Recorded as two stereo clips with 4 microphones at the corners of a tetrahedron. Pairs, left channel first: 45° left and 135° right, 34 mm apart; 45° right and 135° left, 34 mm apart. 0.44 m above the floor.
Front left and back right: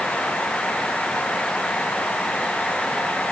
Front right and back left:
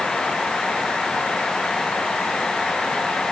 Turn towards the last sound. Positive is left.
No sound to turn to.